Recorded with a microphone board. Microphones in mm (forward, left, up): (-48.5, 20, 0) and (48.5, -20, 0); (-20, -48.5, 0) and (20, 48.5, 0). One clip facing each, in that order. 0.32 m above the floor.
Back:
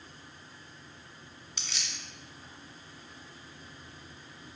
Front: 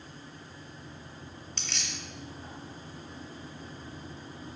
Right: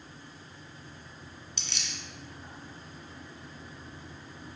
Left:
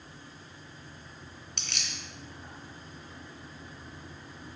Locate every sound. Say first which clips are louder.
1.6 s keys jangling: front 2 dB, left 1 dB; 80° left, 1.8 m